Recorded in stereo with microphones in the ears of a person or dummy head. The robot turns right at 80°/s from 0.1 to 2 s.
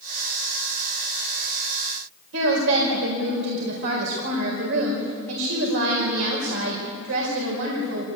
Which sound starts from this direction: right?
A woman speaking, at 2.3 s.